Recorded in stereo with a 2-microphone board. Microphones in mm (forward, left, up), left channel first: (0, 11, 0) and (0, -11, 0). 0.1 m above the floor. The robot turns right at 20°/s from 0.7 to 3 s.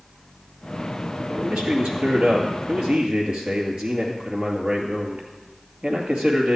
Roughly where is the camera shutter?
I don't hear a camera shutter.